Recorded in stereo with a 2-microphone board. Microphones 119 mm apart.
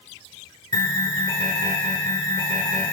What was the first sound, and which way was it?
An alarm, 35° left (ahead or behind).